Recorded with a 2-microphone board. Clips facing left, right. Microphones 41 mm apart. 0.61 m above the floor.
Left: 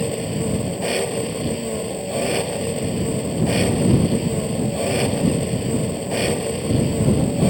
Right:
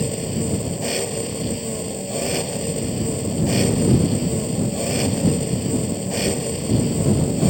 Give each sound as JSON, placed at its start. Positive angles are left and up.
{"t": 0.0, "sound": "an engine running", "side_deg": 15}